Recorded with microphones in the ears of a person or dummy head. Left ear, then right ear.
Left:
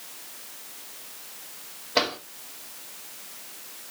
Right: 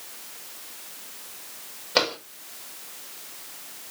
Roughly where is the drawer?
Right.